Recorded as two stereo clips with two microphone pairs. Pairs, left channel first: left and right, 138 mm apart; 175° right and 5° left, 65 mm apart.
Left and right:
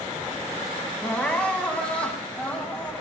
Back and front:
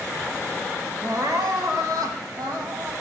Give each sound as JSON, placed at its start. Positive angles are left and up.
{"t": 1.0, "sound": "crying", "azimuth_deg": 10, "distance_m": 1.9}